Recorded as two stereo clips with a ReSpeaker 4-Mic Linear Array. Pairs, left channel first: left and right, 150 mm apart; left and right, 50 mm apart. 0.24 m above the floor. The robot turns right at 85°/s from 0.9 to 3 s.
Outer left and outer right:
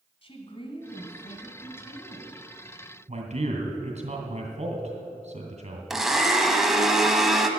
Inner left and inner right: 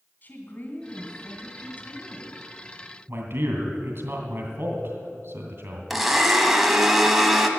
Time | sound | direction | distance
0.2 | a woman speaking | 50° left | 2.5 m
3.1 | a man speaking | 50° right (ahead or behind) | 2.5 m
5.9 | a blender | centre (ahead or behind) | 1.2 m